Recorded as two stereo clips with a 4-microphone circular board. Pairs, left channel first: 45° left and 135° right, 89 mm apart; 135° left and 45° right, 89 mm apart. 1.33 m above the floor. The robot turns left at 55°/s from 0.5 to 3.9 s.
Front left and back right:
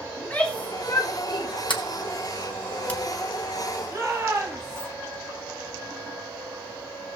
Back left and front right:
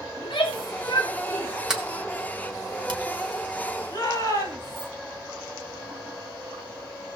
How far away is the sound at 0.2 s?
About 3 m.